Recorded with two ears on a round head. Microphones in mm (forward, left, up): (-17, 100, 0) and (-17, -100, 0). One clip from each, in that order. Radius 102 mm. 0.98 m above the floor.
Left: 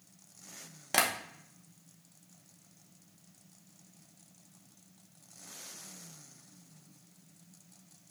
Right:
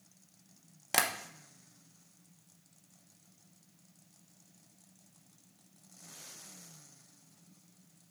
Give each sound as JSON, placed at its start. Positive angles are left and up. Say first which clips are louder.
{"t": 0.9, "sound": "tapping", "louder": "left 2 dB", "side_deg": -10, "distance_m": 0.8}